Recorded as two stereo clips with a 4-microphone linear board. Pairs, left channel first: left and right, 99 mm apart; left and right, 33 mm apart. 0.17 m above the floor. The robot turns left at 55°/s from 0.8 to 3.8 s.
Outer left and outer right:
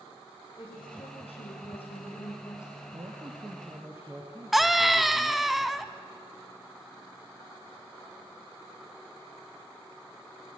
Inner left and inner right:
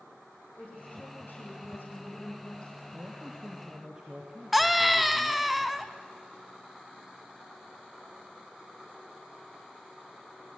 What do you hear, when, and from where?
0.6 s a woman speaking: 130° left, 6.5 m; by 2.8 s 20° left, 6.5 m
2.9 s a man speaking: 110° right, 3.5 m; by 5.5 s 160° right, 3.5 m
4.5 s a scream: centre (ahead or behind), 1.0 m